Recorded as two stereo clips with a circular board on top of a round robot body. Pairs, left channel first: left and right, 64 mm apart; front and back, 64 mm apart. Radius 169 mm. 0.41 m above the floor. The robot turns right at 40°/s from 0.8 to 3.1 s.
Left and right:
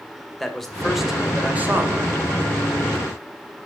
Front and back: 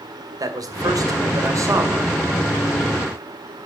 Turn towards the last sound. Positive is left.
turn(degrees=-95)